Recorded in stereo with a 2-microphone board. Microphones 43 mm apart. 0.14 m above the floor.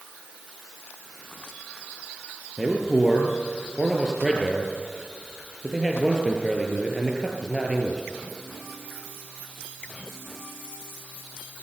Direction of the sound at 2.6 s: 15° right (ahead or behind).